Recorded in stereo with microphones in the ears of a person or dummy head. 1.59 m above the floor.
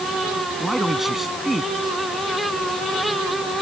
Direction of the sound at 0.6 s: Centre (ahead or behind).